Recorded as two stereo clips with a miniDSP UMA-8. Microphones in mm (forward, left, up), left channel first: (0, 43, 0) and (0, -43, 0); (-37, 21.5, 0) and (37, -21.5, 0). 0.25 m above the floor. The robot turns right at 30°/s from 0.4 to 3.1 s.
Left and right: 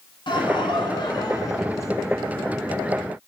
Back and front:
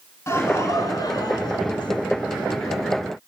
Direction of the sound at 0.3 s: 95° left.